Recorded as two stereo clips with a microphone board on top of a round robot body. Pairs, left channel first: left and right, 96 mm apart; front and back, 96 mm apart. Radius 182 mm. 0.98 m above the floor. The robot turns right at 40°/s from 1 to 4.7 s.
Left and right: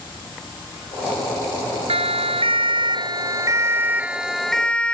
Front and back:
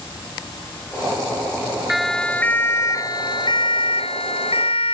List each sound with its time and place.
1.9 s a siren: 95° right; by 5.0 s 10° left